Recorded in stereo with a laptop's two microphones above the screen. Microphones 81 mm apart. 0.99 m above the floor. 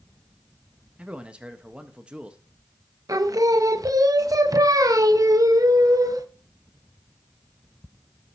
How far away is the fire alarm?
I don't hear a fire alarm.